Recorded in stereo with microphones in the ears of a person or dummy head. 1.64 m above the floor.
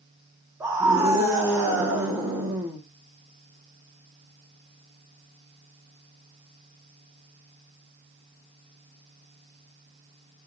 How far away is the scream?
About 1.6 m.